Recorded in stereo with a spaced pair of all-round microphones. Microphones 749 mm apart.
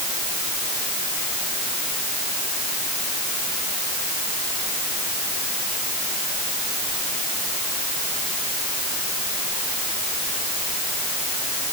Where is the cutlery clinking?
I don't hear cutlery clinking.